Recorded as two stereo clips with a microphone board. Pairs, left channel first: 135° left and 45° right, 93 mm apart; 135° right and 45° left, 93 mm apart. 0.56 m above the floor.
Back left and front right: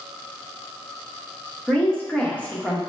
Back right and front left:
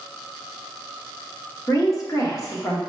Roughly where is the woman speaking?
Behind.